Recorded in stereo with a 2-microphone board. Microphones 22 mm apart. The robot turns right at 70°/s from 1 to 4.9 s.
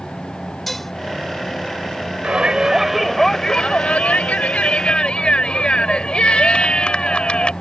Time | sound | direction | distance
0.7 | dishes clattering | 10° left (ahead or behind) | ?
2.2 | a shout | 55° right | ?